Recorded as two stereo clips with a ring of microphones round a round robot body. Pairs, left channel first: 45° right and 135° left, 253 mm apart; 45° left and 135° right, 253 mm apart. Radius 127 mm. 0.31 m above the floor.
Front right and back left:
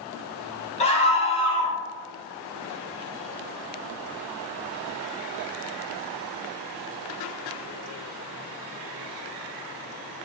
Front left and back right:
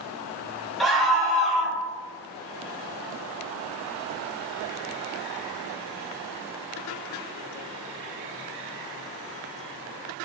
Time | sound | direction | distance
0.8 | a scream | 45° right | 1.0 m